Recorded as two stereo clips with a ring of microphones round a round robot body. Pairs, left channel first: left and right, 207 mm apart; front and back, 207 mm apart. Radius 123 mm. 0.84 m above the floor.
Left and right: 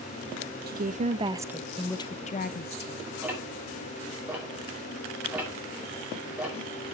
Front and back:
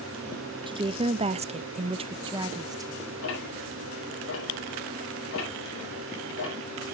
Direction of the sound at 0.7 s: 120° right.